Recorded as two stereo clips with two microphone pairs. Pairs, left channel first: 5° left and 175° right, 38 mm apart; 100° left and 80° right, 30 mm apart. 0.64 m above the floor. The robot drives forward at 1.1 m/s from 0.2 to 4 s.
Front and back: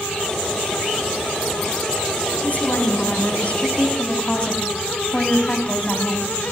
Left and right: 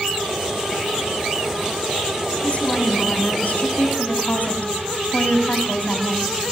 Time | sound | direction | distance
2.4 | a woman speaking | 50° left | 6 m